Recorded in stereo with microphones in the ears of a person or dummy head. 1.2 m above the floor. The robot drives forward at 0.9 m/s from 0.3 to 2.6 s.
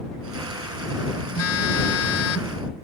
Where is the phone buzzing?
80° left; by 2.6 s 75° left (ahead or behind).